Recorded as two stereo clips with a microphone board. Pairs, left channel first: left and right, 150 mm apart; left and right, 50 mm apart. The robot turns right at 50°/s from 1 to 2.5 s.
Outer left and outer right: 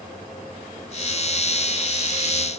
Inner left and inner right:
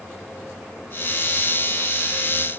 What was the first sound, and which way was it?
Only background noise.